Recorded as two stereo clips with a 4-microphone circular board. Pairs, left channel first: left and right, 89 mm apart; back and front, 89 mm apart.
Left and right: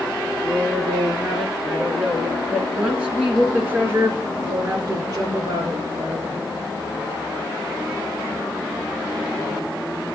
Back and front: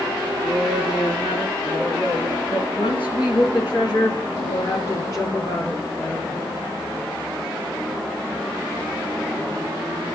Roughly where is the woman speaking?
Behind.